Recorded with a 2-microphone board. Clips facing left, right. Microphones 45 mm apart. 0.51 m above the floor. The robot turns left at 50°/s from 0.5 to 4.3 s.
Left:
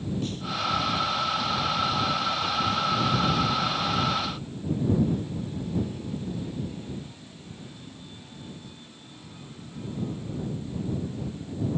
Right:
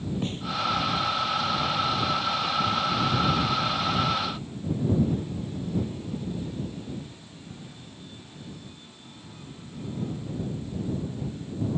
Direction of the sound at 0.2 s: 30° right (ahead or behind).